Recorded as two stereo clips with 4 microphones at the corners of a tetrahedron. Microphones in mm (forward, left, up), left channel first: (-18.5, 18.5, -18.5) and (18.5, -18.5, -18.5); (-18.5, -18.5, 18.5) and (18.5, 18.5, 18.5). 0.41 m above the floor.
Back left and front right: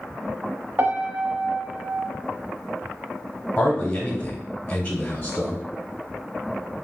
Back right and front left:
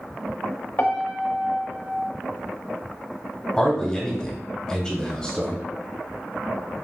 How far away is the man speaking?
About 0.9 m.